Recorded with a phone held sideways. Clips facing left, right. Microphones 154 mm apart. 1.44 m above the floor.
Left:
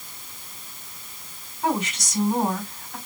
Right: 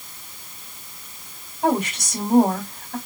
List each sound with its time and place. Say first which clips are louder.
1.6 s a woman speaking: right 4 dB; 65° right (ahead or behind), 4 m